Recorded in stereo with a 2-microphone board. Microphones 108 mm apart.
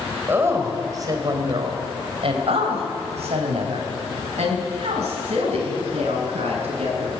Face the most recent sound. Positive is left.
turn(degrees=-70)  # may be behind; listen again after turning